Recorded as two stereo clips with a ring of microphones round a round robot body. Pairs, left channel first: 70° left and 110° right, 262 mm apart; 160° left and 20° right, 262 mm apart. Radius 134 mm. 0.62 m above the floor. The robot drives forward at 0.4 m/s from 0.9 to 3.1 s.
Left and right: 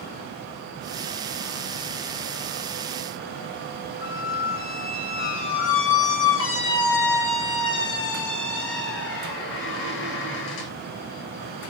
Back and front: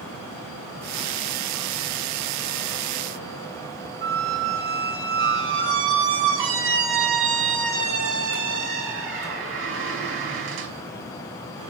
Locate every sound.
4.0 s a squeak: 20° left, 0.7 m